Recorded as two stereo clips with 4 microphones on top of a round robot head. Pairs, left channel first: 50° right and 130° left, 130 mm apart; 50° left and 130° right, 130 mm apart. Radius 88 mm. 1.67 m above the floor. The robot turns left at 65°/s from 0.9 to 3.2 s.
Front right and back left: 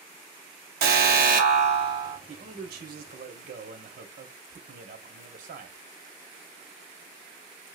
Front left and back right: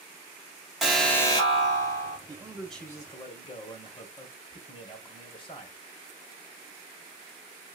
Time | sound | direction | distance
0.8 | an alarm | 140° left | 1.0 m
2.3 | a man speaking | 165° left | 1.0 m